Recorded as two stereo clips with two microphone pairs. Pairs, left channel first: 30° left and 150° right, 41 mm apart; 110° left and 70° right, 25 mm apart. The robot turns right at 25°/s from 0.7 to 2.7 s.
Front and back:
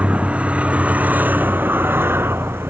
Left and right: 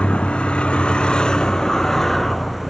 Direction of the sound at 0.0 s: 150° left.